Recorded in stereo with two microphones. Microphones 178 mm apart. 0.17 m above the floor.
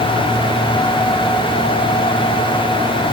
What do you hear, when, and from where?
Only background noise.